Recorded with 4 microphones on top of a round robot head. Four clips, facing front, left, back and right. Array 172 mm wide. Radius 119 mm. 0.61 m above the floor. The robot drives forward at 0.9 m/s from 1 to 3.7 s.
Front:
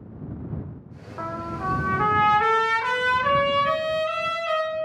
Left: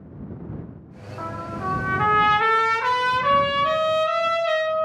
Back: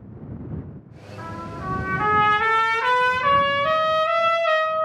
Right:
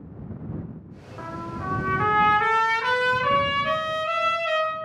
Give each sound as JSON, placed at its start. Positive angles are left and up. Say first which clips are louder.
{"t": 1.2, "sound": "a trumpet", "louder": "left 3 dB, front 3 dB", "azimuth_deg": 25, "distance_m": 1.5}